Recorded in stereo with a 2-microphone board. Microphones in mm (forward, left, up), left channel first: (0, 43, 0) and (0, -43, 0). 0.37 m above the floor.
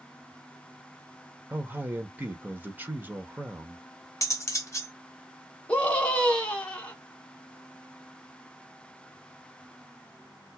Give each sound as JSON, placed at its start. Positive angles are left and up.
{"t": 1.5, "sound": "a man speaking", "side_deg": -20, "distance_m": 0.8}
{"t": 4.2, "sound": "cutlery clinking", "side_deg": 35, "distance_m": 0.8}
{"t": 5.7, "sound": "a scream", "side_deg": 15, "distance_m": 1.4}